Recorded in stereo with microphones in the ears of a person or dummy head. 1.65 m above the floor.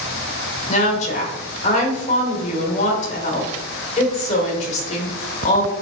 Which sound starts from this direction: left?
A woman speaking, at 0.7 s.